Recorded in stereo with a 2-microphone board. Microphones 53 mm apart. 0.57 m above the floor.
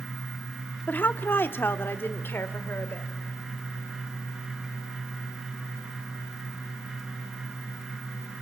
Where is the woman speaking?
35° left (ahead or behind), 0.8 m; by 3.1 s 40° left (ahead or behind), 2.0 m.